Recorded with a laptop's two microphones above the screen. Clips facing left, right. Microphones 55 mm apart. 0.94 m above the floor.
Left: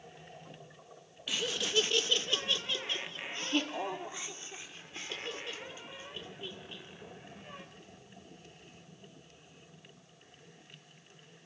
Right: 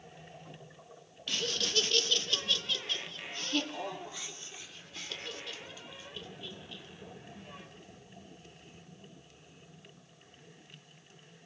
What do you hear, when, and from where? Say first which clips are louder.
1.3 s laughter: left 1 dB; 10° left (ahead or behind), 1.2 m; by 7.6 s 25° left (ahead or behind), 5 m